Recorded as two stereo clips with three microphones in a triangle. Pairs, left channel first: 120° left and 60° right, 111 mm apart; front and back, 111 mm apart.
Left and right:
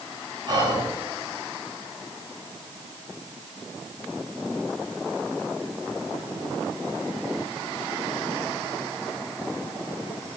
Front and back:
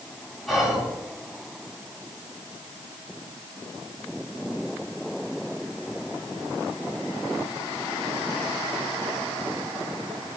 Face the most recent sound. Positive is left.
turn(degrees=-90)